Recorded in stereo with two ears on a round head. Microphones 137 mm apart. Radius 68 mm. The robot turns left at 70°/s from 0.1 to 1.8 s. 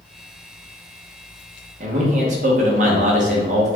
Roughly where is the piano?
No piano in this recording.